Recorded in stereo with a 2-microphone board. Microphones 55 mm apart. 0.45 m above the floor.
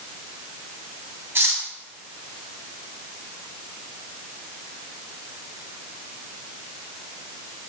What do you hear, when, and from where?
1.4 s cutlery clinking: 50° right (ahead or behind), 2 m